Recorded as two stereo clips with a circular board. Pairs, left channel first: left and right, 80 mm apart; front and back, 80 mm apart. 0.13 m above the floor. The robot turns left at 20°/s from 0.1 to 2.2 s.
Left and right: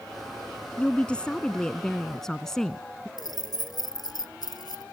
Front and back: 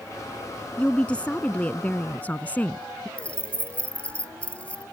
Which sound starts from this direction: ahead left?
A woman speaking, at 0.8 s.